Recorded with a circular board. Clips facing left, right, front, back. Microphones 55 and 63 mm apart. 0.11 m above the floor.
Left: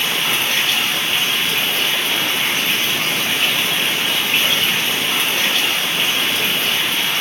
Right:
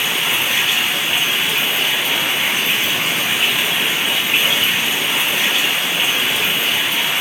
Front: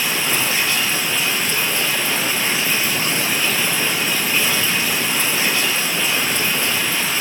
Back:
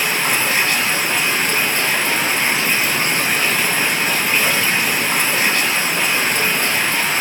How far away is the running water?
About 1.9 m.